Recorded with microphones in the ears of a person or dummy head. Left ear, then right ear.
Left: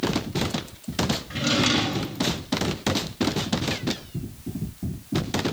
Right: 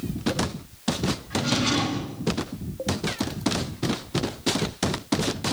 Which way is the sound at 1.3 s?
35° left (ahead or behind).